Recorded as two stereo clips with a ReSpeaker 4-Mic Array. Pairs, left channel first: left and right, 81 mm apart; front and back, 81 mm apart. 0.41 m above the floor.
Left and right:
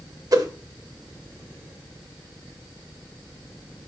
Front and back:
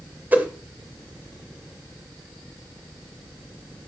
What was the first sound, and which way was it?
A whoosh, 115° right.